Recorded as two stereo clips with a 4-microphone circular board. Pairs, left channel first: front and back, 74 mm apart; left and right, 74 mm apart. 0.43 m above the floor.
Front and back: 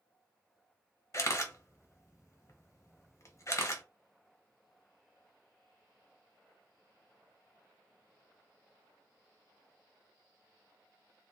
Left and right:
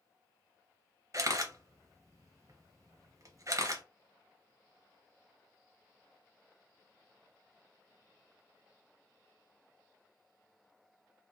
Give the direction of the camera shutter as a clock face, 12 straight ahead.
2 o'clock.